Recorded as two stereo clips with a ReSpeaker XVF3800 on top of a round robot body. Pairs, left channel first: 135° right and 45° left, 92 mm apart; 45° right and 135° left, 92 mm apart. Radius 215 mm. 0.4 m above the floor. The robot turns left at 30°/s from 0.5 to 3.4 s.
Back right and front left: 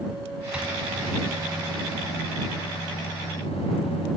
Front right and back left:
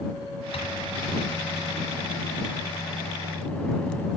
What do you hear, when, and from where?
0.5 s a microwave: 35° right; by 4.1 s 120° right